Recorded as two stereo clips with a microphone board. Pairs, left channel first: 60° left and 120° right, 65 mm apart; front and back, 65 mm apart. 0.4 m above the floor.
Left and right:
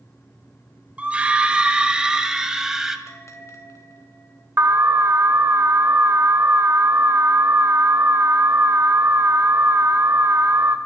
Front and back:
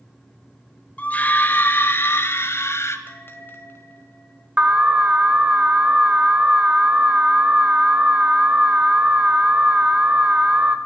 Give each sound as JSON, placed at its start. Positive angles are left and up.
{"t": 1.0, "sound": "a scream", "azimuth_deg": -55, "distance_m": 1.3}
{"t": 3.1, "sound": "a bell", "azimuth_deg": 45, "distance_m": 2.5}
{"t": 4.6, "sound": "an alarm", "azimuth_deg": -120, "distance_m": 1.2}